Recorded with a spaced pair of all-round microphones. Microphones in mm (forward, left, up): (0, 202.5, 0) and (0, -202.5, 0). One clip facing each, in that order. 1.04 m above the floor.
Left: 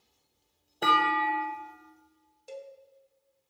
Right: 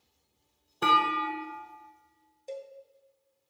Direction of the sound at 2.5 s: 25° left (ahead or behind).